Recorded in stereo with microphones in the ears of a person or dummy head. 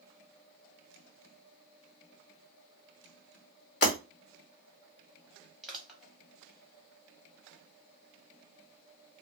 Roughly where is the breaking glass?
Left.